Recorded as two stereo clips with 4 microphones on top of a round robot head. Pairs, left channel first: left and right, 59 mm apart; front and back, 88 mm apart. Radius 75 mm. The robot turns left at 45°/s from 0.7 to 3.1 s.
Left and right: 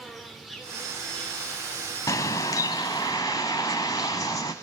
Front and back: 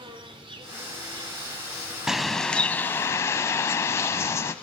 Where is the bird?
95° left, 0.7 m; by 4.5 s 50° left, 0.7 m.